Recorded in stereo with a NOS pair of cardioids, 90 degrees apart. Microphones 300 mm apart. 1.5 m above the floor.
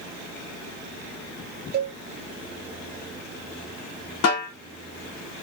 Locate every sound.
1.7 s a cowbell: 30° right, 0.7 m
4.2 s a snare drum: 60° left, 1.8 m